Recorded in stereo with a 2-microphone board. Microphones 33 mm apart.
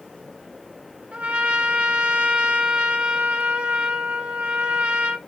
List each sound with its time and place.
1.1 s a trumpet: 40° right (ahead or behind), 0.8 m